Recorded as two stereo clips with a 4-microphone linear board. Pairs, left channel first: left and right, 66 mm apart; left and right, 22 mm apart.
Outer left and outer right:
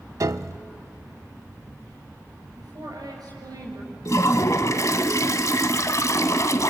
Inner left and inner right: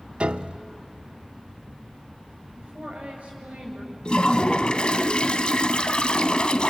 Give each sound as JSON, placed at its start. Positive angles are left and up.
{"t": 0.2, "sound": "a piano", "side_deg": -55, "distance_m": 0.5}
{"t": 2.6, "sound": "a woman speaking", "side_deg": -75, "distance_m": 8.0}
{"t": 4.0, "sound": "a toilet flushing", "side_deg": 50, "distance_m": 0.9}